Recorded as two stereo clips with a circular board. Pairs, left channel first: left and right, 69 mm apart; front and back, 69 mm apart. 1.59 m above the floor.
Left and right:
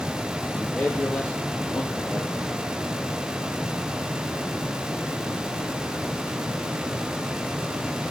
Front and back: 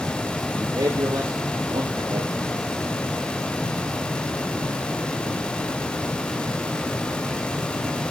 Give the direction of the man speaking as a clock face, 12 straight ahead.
7 o'clock.